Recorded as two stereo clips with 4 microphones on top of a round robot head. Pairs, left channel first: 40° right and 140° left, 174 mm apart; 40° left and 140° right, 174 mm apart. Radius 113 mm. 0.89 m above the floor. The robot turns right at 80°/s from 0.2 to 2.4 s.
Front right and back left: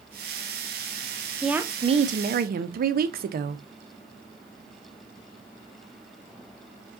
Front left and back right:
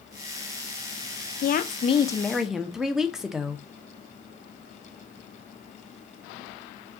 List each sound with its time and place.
1.4 s a woman speaking: 50° left, 0.6 m; by 3.6 s 130° left, 0.6 m